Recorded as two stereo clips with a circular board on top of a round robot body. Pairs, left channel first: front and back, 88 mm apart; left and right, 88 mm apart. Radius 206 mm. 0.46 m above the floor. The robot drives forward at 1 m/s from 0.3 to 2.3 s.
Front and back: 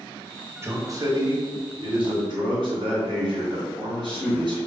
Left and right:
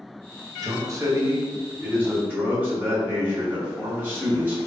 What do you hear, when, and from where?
0.6 s a man speaking: 125° right, 1.3 m; by 4.6 s 160° right, 2.5 m